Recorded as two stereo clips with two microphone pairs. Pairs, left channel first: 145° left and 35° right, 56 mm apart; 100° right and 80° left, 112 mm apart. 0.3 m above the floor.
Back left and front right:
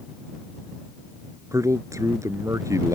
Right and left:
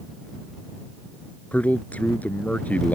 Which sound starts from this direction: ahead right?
A man speaking, at 1.5 s.